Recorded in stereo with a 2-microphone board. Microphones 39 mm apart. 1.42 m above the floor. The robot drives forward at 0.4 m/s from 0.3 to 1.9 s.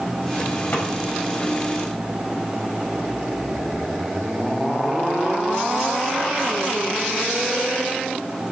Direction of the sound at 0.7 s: 50° left (ahead or behind).